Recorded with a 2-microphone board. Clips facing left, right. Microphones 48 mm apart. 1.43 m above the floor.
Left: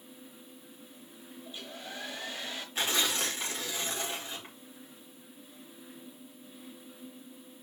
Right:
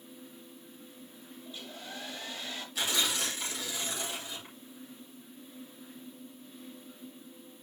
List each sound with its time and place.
1.4 s a hair dryer: 25° left (ahead or behind), 5 m
2.8 s tearing paper: 35° left (ahead or behind), 5 m